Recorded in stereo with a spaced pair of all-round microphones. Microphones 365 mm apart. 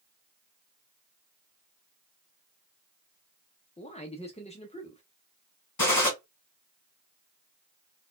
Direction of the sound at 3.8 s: 15° left (ahead or behind).